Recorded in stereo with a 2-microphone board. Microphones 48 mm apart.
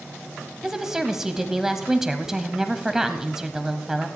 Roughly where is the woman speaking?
Centre.